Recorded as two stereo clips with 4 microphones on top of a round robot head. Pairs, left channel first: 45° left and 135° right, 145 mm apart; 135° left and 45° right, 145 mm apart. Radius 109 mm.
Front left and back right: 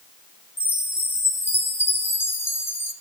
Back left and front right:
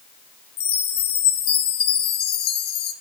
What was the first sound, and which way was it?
A chime, 120° left.